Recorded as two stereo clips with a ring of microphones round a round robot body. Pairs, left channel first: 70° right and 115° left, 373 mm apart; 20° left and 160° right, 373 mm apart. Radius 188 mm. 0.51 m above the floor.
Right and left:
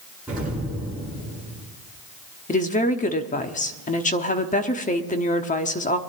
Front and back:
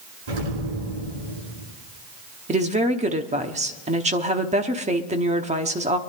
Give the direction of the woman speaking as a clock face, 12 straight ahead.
4 o'clock.